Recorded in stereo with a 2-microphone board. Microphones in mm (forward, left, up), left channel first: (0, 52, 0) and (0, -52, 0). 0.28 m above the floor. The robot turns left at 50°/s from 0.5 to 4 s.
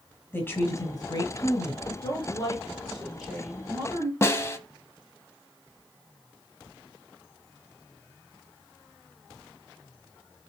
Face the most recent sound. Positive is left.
turn(degrees=25)  # may be behind; listen again after turning